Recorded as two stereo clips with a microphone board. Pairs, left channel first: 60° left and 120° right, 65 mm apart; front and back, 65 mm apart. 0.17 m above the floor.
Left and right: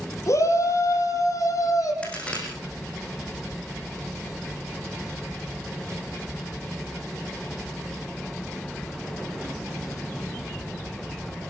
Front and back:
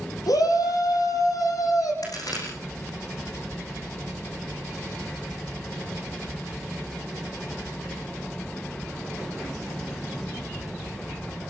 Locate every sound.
0.3 s a shout: 20° left, 7 m; by 1.9 s 25° left, 8.5 m
2.0 s a crack: 10° right, 8 m